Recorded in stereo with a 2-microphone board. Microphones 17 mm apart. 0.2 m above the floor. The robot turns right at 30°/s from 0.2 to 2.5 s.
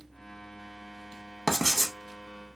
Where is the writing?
25° left (ahead or behind), 0.5 m; by 1.9 s 15° left (ahead or behind), 0.5 m.